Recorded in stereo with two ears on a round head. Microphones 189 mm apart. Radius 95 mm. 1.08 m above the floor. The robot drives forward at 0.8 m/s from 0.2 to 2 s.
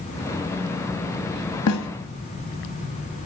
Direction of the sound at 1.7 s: 80° left.